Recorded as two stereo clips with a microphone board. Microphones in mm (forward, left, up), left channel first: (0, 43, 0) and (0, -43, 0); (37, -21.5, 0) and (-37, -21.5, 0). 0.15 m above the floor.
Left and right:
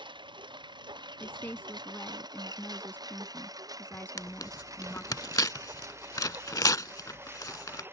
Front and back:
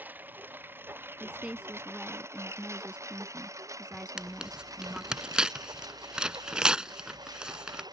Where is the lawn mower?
115° right; by 7.9 s 155° right.